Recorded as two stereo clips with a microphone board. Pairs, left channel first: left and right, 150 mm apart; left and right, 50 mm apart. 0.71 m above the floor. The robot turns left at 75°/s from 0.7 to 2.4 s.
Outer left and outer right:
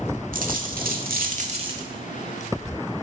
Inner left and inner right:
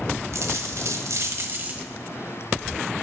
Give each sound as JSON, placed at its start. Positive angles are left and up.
{"t": 0.3, "sound": "a dropped coin", "azimuth_deg": -70, "distance_m": 1.1}